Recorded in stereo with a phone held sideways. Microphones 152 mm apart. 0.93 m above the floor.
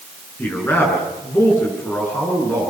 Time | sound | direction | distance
0.4 | a man speaking | 15° left (ahead or behind) | 9 m